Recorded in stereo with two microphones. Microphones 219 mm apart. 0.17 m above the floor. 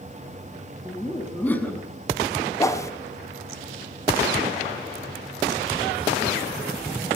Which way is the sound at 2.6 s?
15° left (ahead or behind).